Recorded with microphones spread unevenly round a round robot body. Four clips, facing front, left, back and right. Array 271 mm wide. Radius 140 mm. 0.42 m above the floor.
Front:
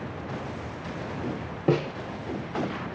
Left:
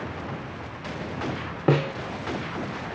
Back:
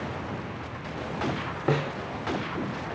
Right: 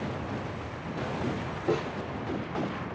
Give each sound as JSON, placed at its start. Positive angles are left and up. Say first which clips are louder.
{"t": 1.7, "sound": "a snare drum", "louder": "left 6 dB, front 2 dB", "azimuth_deg": 70, "distance_m": 0.5}